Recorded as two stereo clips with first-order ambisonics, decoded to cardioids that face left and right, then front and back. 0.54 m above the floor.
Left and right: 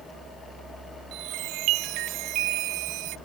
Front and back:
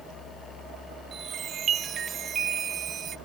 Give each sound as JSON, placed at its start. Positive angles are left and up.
{"t": 1.1, "sound": "a chime", "azimuth_deg": -120}